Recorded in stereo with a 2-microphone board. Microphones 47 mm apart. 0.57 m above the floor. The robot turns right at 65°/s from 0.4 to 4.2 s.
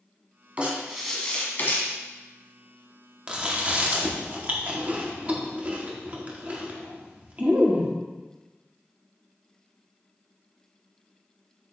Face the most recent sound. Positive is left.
turn(degrees=-30)  # may be behind; listen again after turning